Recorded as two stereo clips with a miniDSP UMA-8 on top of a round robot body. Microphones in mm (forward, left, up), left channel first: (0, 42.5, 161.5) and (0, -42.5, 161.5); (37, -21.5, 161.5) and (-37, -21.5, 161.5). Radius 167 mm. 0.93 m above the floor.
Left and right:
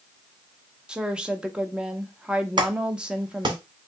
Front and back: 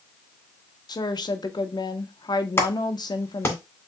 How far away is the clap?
About 2 m.